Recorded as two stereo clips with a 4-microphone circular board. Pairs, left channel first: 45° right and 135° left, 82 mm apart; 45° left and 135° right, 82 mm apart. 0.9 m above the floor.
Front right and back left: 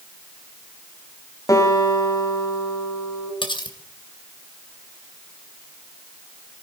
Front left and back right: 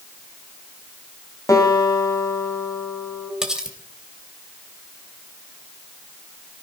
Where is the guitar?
Straight ahead, 3.5 m.